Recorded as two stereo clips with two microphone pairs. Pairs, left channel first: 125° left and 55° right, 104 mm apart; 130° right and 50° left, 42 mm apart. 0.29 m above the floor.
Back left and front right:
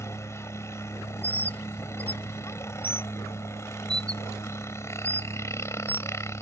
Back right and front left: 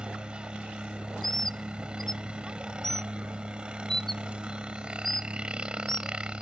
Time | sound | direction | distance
0.0 | a helicopter | 95° left | ?
1.2 | a bird | 150° left | ?